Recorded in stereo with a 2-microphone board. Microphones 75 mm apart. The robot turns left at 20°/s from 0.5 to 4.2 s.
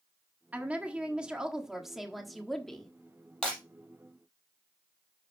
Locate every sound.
0.5 s a woman speaking: 145° right, 1.4 m; by 2.9 s 170° left, 1.4 m
3.4 s breaking glass: 10° left (ahead or behind), 4.5 m; by 3.6 s 15° left (ahead or behind), 4.5 m